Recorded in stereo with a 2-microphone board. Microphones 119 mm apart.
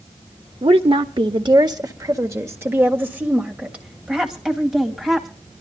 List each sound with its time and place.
0.6 s a woman speaking: 55° right (ahead or behind), 1.4 m; by 5.3 s centre (ahead or behind), 3.5 m